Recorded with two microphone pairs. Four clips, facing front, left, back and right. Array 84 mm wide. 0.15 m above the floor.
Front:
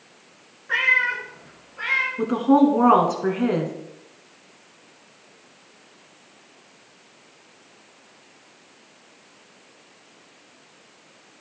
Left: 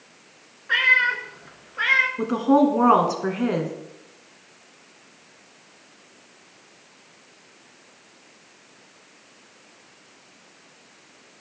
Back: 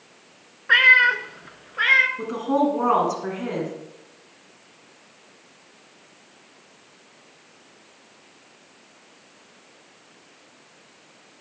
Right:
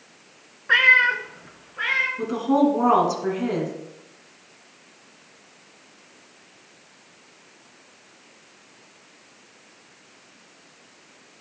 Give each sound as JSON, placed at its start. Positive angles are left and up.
{"t": 0.7, "sound": "a cat meowing", "azimuth_deg": -145, "distance_m": 0.8}
{"t": 2.2, "sound": "a woman speaking", "azimuth_deg": 65, "distance_m": 1.7}